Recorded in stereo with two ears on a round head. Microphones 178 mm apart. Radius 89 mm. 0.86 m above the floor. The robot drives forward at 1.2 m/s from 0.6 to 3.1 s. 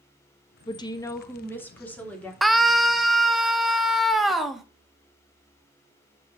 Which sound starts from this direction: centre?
A scream, at 2.4 s.